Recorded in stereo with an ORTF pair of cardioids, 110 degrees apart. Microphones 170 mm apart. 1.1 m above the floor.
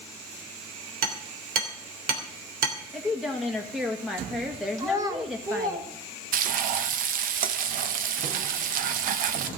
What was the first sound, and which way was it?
Hammering, 70° right.